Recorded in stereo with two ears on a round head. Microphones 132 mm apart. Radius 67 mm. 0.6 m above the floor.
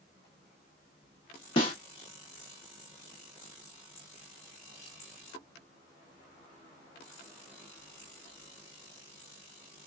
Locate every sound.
1.6 s a snare drum: 35° left (ahead or behind), 1.2 m